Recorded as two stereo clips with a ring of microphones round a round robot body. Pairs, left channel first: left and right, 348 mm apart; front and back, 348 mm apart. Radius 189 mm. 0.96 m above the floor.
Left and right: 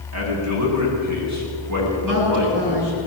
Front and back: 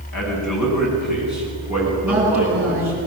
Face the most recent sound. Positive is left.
turn(degrees=-90)